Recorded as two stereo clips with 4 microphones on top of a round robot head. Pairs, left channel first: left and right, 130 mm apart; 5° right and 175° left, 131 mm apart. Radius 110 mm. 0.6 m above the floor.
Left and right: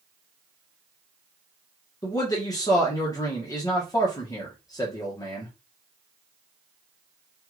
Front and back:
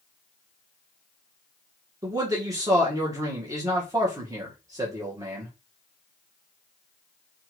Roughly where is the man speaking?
Behind left.